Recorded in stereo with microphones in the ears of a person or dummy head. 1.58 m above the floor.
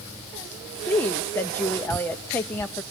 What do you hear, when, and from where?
0.9 s a woman speaking: 15° left (ahead or behind), 0.7 m